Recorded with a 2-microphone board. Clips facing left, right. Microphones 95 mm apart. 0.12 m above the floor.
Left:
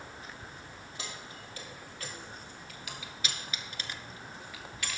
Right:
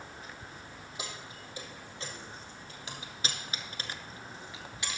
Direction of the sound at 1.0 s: 20° right (ahead or behind).